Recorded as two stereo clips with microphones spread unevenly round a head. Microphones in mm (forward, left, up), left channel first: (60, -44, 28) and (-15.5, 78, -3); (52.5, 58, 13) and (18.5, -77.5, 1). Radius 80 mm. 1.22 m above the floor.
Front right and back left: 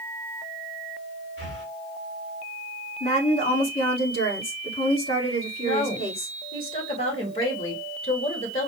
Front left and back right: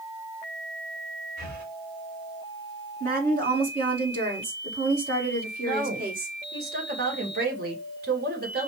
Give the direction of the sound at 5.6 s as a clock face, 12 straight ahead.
4 o'clock.